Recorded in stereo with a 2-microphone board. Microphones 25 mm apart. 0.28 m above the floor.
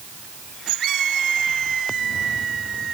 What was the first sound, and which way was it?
Only background noise.